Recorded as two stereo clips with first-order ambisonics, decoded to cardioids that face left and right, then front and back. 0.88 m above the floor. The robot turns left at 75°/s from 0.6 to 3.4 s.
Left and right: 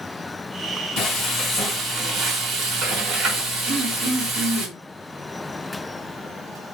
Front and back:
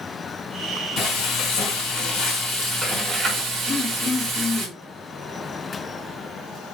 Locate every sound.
1.0 s frying: 50° left, 1.6 m; by 4.7 s 135° right, 1.6 m
3.7 s throat clearing: 60° right, 1.0 m